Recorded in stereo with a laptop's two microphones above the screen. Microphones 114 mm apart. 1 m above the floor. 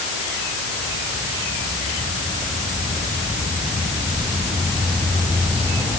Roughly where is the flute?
I don't hear a flute.